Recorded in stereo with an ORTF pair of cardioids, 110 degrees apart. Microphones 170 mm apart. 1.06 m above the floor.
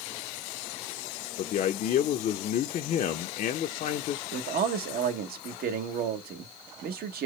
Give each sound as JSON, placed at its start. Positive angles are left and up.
{"t": 1.4, "sound": "a man speaking", "azimuth_deg": 50, "distance_m": 0.6}
{"t": 4.3, "sound": "a man speaking", "azimuth_deg": -65, "distance_m": 1.0}